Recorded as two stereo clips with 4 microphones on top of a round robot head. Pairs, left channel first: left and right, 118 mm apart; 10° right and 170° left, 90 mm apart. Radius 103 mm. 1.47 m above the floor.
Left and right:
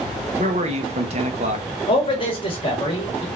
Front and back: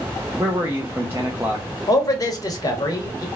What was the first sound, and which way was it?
A man speaking, 115° right.